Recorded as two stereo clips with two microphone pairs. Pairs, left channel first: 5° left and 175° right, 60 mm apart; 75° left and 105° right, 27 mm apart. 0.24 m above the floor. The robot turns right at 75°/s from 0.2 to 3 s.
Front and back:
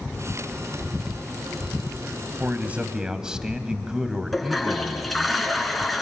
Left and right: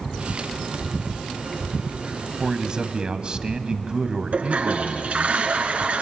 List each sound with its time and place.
2.4 s a man speaking: 155° right, 1.6 m; by 5.3 s 110° right, 1.6 m
4.3 s a toilet flushing: 85° right, 2.5 m